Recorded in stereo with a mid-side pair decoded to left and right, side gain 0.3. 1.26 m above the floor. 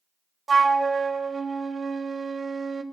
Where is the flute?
50° right, 1.0 m.